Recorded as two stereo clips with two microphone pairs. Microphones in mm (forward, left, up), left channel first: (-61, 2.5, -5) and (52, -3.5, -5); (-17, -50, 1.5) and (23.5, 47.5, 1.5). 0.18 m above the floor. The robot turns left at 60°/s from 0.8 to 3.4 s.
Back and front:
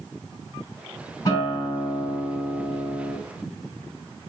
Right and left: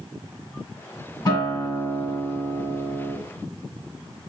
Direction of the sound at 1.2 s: 145° right.